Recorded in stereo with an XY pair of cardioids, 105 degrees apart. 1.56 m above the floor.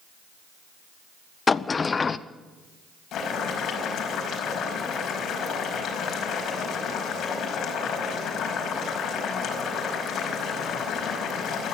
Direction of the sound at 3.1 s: 70° left.